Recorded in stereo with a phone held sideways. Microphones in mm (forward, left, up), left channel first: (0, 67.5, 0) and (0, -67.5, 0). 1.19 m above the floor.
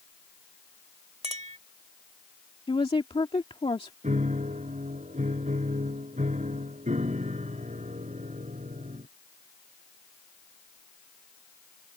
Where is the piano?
65° right (ahead or behind).